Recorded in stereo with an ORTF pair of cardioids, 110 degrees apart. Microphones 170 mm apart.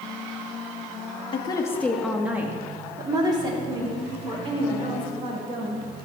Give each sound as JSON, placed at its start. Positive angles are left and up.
{"t": 1.3, "sound": "a woman speaking", "azimuth_deg": 35, "distance_m": 1.0}